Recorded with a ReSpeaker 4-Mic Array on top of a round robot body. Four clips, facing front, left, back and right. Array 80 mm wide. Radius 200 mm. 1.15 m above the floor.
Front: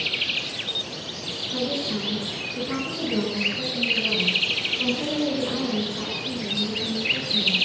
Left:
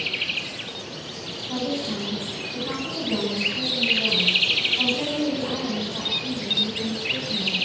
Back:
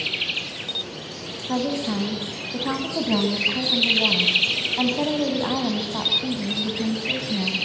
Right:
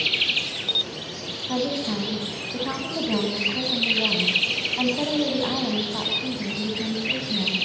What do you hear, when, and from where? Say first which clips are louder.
1.5 s a woman speaking: right 2 dB, back 4 dB; 160° right, 9.5 m